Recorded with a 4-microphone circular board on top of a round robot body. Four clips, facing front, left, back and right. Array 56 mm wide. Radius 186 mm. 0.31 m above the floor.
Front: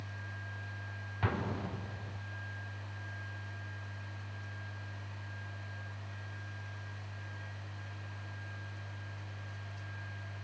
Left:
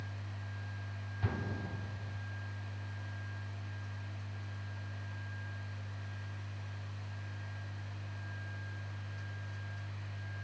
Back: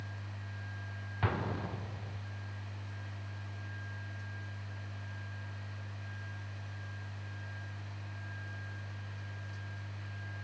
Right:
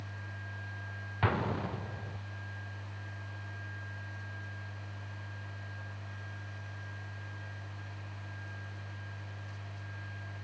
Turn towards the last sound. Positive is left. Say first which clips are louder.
# right 8 dB, back 1 dB
turn(degrees=-95)